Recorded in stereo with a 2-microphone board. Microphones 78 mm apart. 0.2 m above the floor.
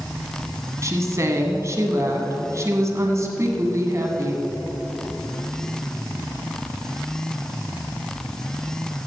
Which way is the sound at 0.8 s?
40° right (ahead or behind).